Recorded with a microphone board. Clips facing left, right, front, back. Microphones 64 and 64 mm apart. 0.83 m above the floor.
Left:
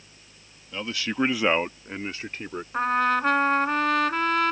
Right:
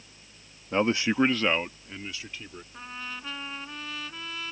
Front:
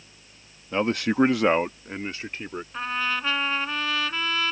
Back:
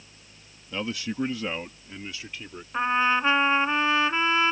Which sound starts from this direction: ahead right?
A man speaking, at 0.7 s.